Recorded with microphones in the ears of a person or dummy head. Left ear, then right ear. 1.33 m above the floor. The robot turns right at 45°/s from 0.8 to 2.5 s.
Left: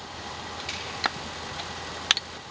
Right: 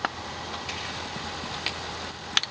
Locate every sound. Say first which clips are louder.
0.7 s a finger snap: left 1 dB; 10° left (ahead or behind), 4.5 m